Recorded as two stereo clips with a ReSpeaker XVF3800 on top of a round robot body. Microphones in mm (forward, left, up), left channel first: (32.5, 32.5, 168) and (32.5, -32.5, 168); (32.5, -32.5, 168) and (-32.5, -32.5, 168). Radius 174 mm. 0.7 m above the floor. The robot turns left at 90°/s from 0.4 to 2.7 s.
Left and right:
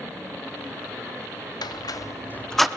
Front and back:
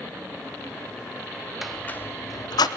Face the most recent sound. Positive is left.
turn(degrees=-5)